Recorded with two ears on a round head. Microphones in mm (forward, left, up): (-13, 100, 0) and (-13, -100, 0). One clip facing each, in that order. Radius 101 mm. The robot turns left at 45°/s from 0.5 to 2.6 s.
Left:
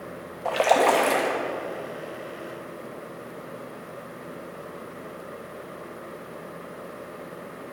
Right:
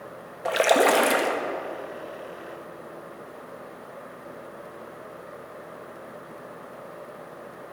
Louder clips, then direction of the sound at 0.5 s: Right 1 dB; 20° right (ahead or behind).